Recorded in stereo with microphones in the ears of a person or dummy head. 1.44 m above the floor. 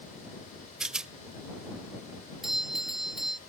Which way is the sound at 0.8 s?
Centre (ahead or behind).